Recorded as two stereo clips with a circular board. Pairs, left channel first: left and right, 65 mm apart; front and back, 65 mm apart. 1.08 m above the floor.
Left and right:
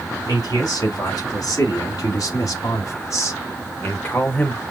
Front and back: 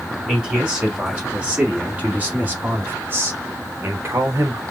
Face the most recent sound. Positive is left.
turn(degrees=155)